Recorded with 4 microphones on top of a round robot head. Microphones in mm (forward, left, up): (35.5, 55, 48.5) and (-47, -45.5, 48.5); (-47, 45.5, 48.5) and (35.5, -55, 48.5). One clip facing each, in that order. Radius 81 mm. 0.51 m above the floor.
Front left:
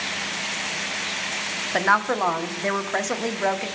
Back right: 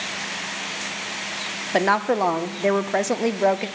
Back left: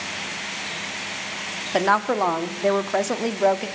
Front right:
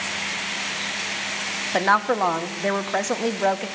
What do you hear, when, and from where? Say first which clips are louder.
1.7 s a woman speaking: back right 2 dB, even; 155° right, 0.7 m